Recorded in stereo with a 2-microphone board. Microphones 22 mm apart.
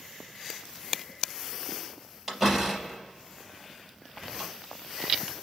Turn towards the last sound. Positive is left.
turn(degrees=-10)  # may be behind; listen again after turning